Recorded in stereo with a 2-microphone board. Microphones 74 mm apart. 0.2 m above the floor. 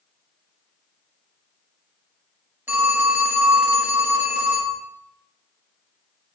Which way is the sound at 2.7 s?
25° right (ahead or behind).